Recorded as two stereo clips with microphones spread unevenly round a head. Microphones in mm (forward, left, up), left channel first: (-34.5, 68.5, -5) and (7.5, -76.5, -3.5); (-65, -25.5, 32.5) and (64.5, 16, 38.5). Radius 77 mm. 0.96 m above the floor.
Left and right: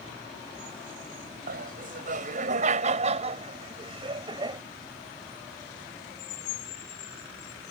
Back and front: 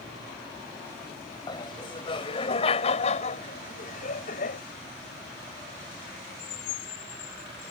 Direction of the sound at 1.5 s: 100° right.